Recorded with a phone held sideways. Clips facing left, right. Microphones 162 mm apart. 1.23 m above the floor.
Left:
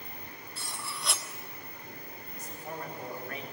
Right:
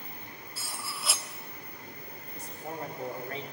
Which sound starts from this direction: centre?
Cutlery clinking, at 0.6 s.